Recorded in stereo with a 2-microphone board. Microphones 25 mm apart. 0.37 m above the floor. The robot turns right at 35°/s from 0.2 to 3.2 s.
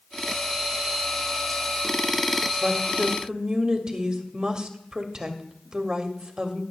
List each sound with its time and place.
2.6 s a woman speaking: 45° right (ahead or behind), 1.3 m; by 6.6 s 30° right (ahead or behind), 1.3 m